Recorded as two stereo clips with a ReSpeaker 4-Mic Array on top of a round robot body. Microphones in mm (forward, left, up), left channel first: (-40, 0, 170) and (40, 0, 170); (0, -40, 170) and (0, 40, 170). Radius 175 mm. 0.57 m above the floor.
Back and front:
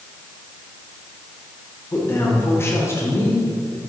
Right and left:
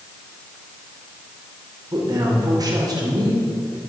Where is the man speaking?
125° left, 3 m.